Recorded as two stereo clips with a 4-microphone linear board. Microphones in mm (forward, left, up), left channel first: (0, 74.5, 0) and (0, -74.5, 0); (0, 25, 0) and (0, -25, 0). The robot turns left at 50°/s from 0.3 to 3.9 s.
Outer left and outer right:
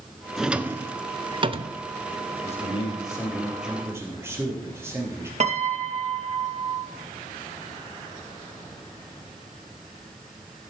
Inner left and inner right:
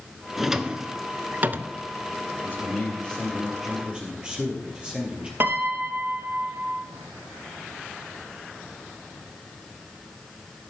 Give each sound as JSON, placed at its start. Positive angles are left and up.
{"t": 0.4, "sound": "a drawer", "side_deg": -5, "distance_m": 0.5}
{"t": 2.4, "sound": "a man speaking", "azimuth_deg": 55, "distance_m": 3.0}
{"t": 5.4, "sound": "a piano", "side_deg": -50, "distance_m": 0.9}